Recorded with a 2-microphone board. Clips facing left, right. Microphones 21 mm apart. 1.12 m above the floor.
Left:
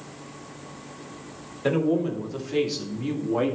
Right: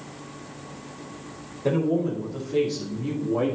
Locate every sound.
1.6 s a man speaking: 90° left, 3 m; by 3.5 s 50° left (ahead or behind), 1.6 m